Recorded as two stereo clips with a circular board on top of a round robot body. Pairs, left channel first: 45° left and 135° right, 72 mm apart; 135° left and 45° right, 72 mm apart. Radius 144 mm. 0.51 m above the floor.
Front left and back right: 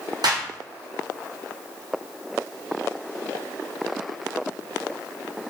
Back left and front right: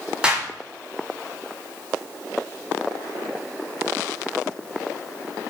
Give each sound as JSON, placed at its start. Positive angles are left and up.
{"t": 0.2, "sound": "a clap", "azimuth_deg": -120, "distance_m": 5.5}